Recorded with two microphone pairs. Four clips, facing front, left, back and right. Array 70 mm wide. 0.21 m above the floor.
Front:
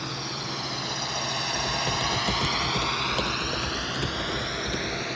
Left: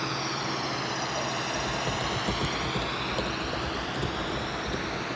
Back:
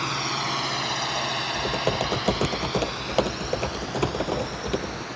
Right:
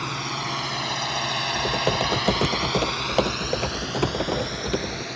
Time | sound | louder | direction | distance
0.0 | a drone | right 2 dB, back 6 dB | 155° right | ?
1.5 | typing on a keyboard | right 6 dB, back 4 dB | 130° right | ?